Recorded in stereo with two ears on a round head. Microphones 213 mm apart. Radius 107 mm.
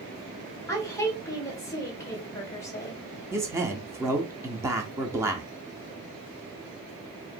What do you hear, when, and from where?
0.7 s a woman speaking: 15° left (ahead or behind), 1.5 m
3.3 s a man speaking: 10° right (ahead or behind), 0.7 m